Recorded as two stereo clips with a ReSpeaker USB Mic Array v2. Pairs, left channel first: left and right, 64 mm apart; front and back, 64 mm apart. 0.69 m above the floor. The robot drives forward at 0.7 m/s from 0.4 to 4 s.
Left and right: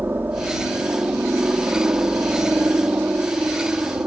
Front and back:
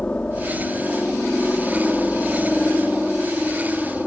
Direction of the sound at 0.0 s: 60° right.